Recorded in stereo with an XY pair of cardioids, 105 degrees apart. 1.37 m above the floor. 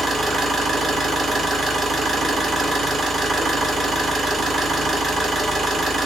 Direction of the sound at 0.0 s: 35° right.